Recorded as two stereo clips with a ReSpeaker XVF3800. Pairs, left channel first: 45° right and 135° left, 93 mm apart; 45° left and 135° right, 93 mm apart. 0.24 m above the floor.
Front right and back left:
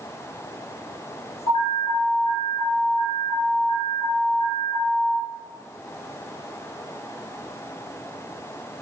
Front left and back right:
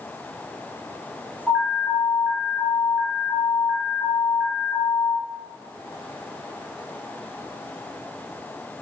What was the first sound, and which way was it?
An alarm, 55° right.